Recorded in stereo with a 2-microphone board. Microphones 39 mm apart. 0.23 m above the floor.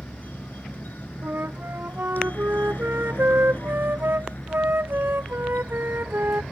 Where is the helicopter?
50° left (ahead or behind); by 6.5 s 45° left (ahead or behind).